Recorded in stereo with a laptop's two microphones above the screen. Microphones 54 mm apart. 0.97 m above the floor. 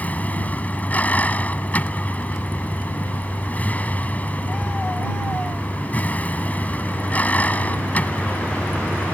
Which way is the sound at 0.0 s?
25° left (ahead or behind).